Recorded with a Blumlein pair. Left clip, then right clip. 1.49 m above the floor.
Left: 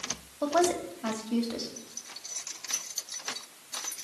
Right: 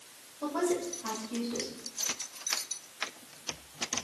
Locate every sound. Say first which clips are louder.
0.4 s a woman speaking: left 5 dB; 60° left, 4 m